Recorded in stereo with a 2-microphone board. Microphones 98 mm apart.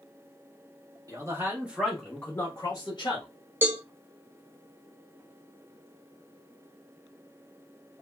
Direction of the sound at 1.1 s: 35° right (ahead or behind).